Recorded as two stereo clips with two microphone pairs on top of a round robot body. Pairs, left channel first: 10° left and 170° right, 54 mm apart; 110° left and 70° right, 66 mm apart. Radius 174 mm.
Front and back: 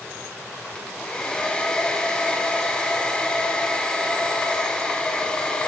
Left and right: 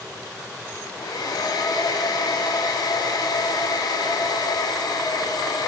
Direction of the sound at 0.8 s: 85° left.